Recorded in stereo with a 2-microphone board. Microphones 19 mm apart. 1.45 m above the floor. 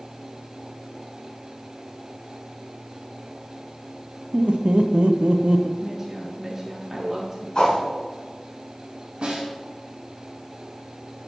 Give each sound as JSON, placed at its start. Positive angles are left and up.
{"t": 4.3, "sound": "laughter", "side_deg": -70, "distance_m": 0.9}
{"t": 5.8, "sound": "a woman speaking", "side_deg": -15, "distance_m": 3.0}
{"t": 7.5, "sound": "a whoosh", "side_deg": 50, "distance_m": 4.0}
{"t": 9.2, "sound": "a snare drum", "side_deg": -60, "distance_m": 4.0}